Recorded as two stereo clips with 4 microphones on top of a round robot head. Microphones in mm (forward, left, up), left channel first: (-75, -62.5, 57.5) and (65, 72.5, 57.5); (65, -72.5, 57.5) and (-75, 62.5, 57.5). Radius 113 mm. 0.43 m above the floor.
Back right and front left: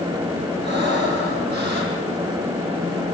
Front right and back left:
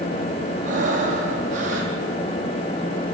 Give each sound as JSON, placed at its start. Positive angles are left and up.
{"t": 0.6, "sound": "breathing", "azimuth_deg": 85, "distance_m": 4.5}